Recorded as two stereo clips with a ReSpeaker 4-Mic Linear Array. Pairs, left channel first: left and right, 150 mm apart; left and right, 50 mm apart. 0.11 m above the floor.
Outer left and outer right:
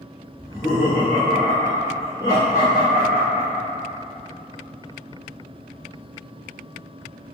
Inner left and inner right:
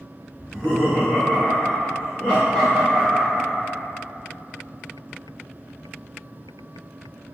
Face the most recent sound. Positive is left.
turn(degrees=15)  # may be behind; listen again after turning